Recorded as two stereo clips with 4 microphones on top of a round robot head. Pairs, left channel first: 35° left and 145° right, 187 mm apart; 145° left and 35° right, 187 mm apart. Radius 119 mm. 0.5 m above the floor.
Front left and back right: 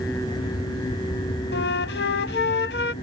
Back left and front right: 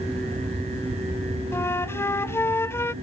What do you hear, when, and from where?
1.5 s a flute: 65° left